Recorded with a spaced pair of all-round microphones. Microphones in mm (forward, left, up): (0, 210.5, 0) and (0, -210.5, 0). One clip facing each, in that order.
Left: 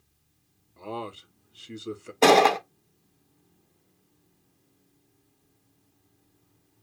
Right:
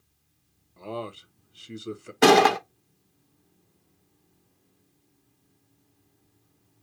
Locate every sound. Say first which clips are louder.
0.8 s a man speaking: right 1 dB; centre (ahead or behind), 0.5 m
2.2 s a gunshot: right 1 dB; 30° right (ahead or behind), 0.5 m